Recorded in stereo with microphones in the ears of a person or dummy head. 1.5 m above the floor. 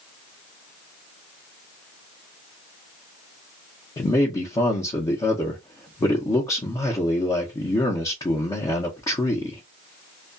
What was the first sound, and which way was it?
A man speaking, 25° left (ahead or behind).